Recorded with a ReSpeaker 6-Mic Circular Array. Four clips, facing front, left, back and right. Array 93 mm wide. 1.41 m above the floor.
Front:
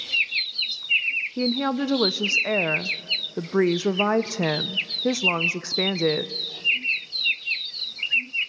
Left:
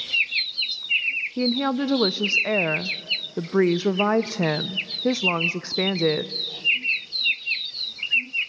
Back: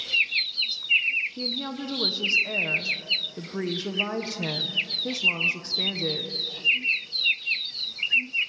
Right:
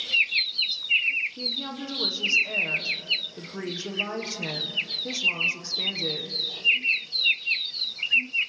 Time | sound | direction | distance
1.4 | a woman speaking | 50° left | 0.5 m